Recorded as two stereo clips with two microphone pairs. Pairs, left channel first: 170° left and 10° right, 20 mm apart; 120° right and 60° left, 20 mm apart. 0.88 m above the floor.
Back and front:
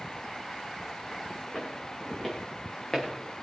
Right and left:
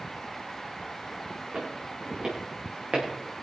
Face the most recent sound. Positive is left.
turn(degrees=100)